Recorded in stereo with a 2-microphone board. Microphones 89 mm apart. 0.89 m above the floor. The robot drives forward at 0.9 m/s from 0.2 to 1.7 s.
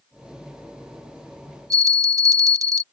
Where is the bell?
40° right (ahead or behind).